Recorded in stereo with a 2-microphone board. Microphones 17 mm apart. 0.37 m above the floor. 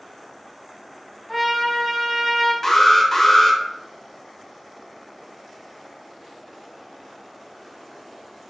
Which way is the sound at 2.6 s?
30° left (ahead or behind).